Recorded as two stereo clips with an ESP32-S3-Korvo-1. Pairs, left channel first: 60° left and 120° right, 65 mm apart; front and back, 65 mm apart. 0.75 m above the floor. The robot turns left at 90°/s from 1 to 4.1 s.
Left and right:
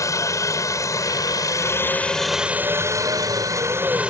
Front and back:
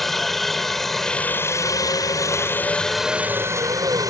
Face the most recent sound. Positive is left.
turn(degrees=165)